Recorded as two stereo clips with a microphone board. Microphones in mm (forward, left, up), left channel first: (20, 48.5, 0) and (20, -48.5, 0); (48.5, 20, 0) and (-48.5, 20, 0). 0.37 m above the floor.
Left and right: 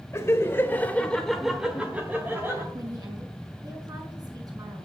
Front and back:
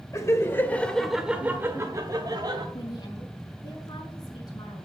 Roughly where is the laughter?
Ahead left.